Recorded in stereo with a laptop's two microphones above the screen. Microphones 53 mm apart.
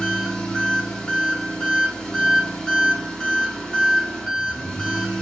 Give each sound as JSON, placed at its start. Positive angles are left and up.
{"t": 0.0, "sound": "an engine running", "side_deg": 15, "distance_m": 1.8}